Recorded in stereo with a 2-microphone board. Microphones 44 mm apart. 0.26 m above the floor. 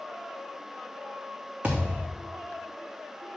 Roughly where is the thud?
Right.